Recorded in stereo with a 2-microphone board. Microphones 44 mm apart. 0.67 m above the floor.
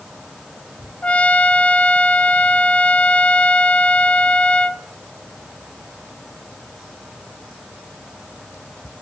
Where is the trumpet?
30° left (ahead or behind), 0.8 m.